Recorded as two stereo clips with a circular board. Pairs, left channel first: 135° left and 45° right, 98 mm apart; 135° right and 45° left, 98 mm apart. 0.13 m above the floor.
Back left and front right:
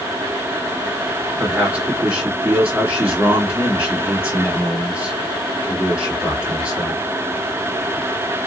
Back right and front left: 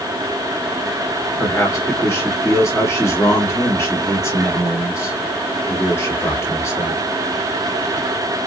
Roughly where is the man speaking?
Right.